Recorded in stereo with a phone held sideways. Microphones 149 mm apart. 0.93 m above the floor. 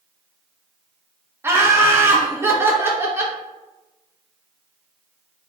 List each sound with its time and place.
1.4 s laughter: 15° right (ahead or behind), 0.7 m